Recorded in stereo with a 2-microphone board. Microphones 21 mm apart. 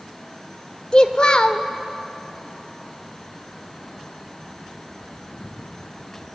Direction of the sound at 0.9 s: 45° left (ahead or behind).